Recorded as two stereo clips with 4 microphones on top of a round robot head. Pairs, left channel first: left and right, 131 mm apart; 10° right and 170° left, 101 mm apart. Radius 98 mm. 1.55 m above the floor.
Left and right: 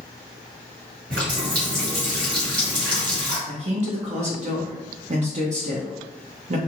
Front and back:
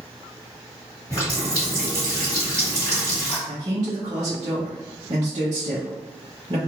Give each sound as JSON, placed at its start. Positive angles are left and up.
{"t": 1.1, "sound": "a running tap", "azimuth_deg": -75, "distance_m": 1.6}
{"t": 3.5, "sound": "a man speaking", "azimuth_deg": -125, "distance_m": 0.6}